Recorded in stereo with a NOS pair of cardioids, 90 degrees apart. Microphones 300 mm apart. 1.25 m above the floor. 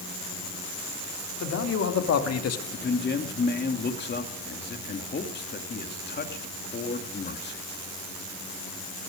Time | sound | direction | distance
1.4 | a man speaking | 55° left | 3.5 m
2.7 | a man speaking | 35° left | 2.5 m